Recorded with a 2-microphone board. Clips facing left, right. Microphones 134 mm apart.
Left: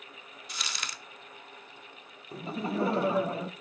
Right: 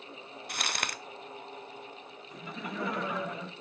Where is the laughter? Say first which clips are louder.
Left 7 dB; 30° left (ahead or behind), 0.5 m.